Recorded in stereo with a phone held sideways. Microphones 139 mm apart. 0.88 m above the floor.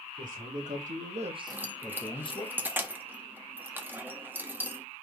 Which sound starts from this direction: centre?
Keys jangling, at 1.5 s.